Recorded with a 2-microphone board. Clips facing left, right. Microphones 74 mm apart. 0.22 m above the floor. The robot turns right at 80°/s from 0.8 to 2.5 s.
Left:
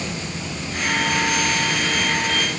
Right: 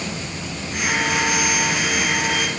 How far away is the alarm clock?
I don't hear an alarm clock.